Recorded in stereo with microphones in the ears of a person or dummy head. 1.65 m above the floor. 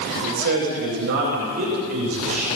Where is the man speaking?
45° right (ahead or behind), 8 m; by 2.5 s 30° right (ahead or behind), 8 m.